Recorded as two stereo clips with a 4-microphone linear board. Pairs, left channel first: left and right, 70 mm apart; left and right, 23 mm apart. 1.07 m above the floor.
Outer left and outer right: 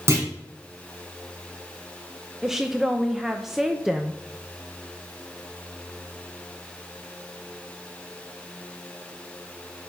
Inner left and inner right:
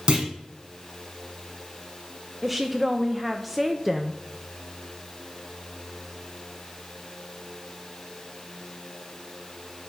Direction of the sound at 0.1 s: 40° right (ahead or behind).